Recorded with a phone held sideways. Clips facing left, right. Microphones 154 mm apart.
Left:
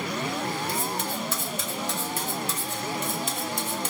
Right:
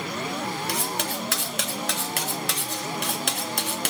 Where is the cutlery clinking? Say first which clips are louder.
Even; 75° right (ahead or behind), 0.5 m.